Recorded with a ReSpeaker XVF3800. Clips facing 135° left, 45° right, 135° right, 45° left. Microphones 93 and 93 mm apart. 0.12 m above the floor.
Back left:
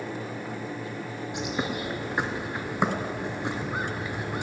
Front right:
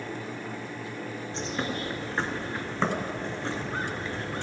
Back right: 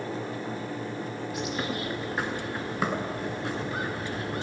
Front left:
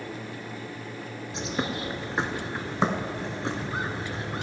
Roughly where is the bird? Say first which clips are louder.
Back left 2 dB, front left 2 dB; left.